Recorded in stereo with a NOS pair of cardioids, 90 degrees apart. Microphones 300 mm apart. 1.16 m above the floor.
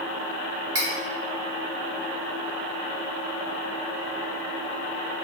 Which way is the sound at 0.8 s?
55° right.